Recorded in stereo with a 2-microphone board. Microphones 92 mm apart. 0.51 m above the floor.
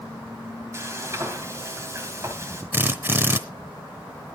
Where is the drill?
25° right (ahead or behind), 0.9 m.